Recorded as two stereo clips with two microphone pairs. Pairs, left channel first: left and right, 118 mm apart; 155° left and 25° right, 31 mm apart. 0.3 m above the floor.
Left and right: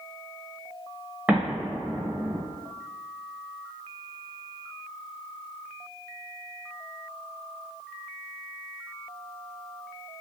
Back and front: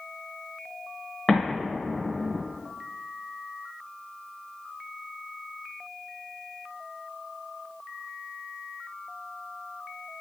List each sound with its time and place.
1.3 s an explosion: 155° right, 1.0 m